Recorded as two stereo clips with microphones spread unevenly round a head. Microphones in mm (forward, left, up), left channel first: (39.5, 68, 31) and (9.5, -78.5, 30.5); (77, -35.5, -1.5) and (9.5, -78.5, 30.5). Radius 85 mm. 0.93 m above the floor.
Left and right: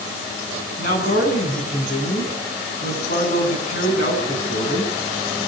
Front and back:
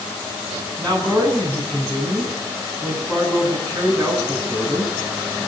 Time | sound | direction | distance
0.8 | a man speaking | 120° left | 9.5 m